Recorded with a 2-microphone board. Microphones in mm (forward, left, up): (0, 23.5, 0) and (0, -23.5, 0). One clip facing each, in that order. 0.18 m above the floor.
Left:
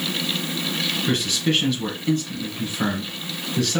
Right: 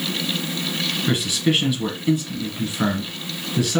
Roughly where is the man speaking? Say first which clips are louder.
Right 2 dB; centre.